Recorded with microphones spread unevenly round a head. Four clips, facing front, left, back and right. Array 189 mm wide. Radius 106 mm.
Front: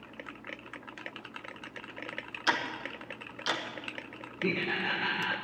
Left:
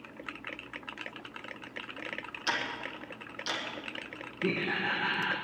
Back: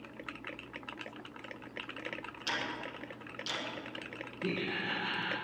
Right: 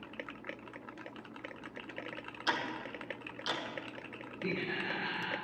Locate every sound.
2.5 s ticking: 10° left, 1.7 m
4.4 s laughter: 45° left, 1.4 m